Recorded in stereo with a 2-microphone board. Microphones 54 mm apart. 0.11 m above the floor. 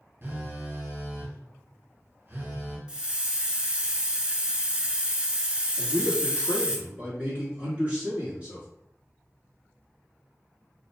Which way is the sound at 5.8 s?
25° right (ahead or behind).